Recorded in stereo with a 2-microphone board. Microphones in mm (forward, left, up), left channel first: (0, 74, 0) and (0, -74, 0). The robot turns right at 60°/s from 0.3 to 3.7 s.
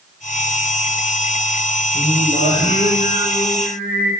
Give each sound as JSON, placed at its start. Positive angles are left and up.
{"t": 1.9, "sound": "singing", "azimuth_deg": -105, "distance_m": 8.5}